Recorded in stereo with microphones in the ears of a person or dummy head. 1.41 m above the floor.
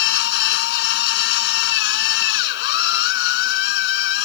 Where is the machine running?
65° left (ahead or behind).